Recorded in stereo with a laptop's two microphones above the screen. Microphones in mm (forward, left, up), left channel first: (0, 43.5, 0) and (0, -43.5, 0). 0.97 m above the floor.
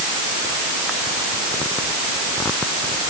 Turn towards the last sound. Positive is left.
No sound to turn to.